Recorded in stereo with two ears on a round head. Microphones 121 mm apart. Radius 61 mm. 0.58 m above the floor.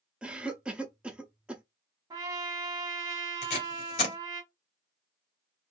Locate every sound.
0.2 s a cough: 10° right (ahead or behind), 0.7 m
2.1 s a trumpet: 25° right (ahead or behind), 1.3 m
3.4 s tape being pulled: 55° left (ahead or behind), 2.0 m